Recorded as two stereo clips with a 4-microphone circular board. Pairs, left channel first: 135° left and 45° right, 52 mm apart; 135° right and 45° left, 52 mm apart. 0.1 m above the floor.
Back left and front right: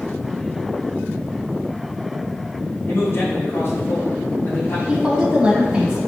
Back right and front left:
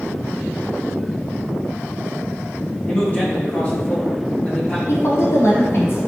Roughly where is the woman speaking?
Behind right.